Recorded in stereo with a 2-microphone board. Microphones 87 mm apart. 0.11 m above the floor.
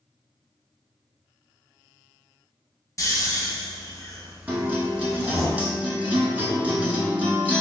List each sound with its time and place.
3.0 s snoring: 40° left (ahead or behind), 0.8 m
4.5 s a guitar: 15° right (ahead or behind), 0.7 m